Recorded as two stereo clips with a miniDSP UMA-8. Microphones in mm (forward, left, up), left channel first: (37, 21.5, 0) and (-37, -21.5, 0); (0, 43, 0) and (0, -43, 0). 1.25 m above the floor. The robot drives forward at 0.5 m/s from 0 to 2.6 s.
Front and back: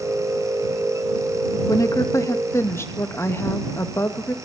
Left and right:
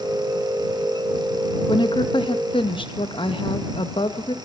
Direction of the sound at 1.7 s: 75° left.